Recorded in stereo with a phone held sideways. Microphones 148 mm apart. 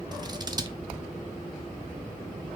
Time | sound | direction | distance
0.1 | scissors | 30° right (ahead or behind) | 0.7 m